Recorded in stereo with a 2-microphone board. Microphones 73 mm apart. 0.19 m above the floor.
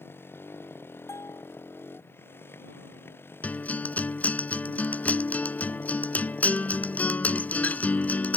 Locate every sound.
0.0 s a motorcycle: 30° left (ahead or behind)
1.1 s a bell: 40° left (ahead or behind)
3.4 s a guitar: 20° left (ahead or behind)